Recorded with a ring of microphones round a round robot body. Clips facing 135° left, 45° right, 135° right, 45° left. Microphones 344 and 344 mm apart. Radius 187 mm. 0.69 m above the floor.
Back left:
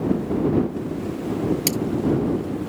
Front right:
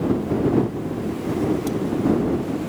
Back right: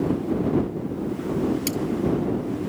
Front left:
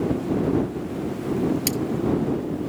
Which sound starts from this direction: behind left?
Cutlery clinking, at 1.7 s.